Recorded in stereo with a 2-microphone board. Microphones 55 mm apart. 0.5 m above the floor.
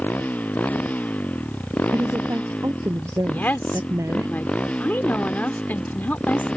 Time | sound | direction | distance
0.0 | a motorcycle | 30° left (ahead or behind) | ?
1.9 | a woman speaking | 65° right (ahead or behind) | ?
3.3 | a woman speaking | 35° left (ahead or behind) | ?